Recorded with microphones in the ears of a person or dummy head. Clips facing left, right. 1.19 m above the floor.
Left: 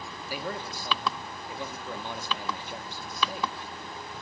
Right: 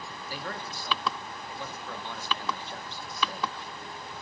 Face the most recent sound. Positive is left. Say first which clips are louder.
# left 4 dB
turn(degrees=15)  # may be behind; listen again after turning